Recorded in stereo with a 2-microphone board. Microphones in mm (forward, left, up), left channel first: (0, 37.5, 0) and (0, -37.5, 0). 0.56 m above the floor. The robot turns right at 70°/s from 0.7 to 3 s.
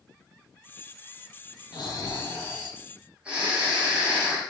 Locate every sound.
1.7 s snoring: 105° left, 4 m; by 4.4 s 165° right, 4 m